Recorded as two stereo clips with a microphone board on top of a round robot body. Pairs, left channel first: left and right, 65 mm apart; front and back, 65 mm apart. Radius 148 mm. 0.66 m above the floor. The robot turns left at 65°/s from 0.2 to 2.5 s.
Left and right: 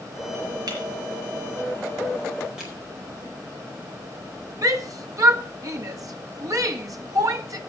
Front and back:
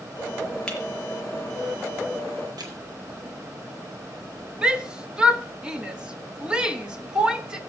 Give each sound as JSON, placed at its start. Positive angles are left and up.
{"t": 0.7, "sound": "breaking glass", "azimuth_deg": -75, "distance_m": 4.5}
{"t": 2.6, "sound": "crushing", "azimuth_deg": -175, "distance_m": 4.5}
{"t": 4.6, "sound": "a shout", "azimuth_deg": -105, "distance_m": 2.0}